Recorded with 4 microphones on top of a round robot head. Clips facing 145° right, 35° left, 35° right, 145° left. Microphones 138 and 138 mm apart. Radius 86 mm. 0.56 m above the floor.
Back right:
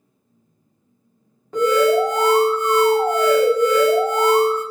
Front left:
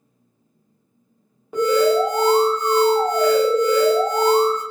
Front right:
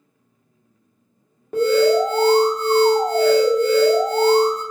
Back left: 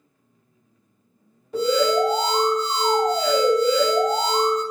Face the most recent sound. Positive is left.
turn(degrees=-40)